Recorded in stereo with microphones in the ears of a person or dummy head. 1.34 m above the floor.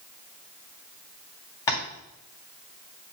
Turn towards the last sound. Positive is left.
turn(degrees=20)  # may be behind; listen again after turning